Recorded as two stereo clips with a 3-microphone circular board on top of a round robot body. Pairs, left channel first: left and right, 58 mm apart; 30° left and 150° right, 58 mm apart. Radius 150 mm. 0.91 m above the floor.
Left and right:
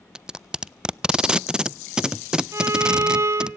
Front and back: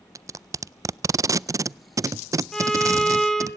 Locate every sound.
0.1 s tape being pulled: 165° right, 0.5 m
2.5 s a violin: 50° right, 2.5 m